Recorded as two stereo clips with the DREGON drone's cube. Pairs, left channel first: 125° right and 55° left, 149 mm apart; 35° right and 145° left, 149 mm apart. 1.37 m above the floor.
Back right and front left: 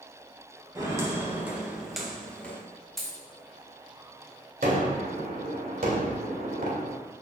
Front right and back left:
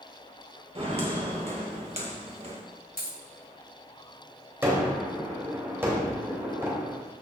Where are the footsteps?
115° left, 2 m; by 2.6 s 165° left, 1.8 m.